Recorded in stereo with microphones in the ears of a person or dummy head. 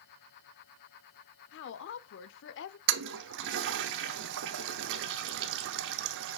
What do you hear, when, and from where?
1.5 s a woman speaking: 65° left (ahead or behind), 0.7 m
2.9 s a toilet flushing: 75° right (ahead or behind), 0.6 m